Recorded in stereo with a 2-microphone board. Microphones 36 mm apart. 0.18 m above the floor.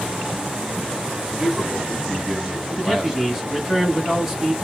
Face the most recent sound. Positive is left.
turn(degrees=-5)  # may be behind; listen again after turning